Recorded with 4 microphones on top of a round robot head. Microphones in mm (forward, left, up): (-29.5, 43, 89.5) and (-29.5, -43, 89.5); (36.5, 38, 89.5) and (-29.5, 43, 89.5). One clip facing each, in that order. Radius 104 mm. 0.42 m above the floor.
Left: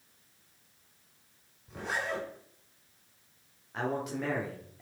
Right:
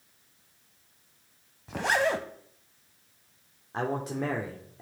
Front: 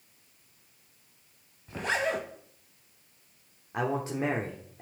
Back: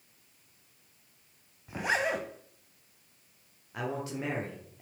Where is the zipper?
105° right, 1.0 m.